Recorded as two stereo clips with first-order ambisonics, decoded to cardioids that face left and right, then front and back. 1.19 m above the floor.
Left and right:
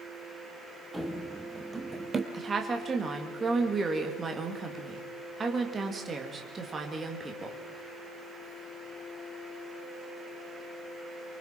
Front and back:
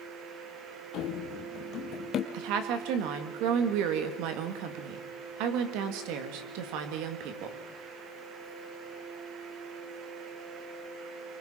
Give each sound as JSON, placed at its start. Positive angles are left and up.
{"t": 0.9, "sound": "running footsteps", "azimuth_deg": 0, "distance_m": 1.7}
{"t": 2.3, "sound": "a woman speaking", "azimuth_deg": -165, "distance_m": 2.0}